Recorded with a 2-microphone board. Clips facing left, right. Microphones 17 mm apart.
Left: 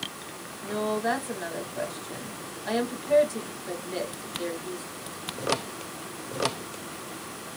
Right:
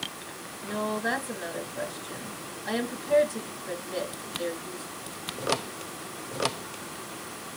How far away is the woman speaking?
About 1.4 m.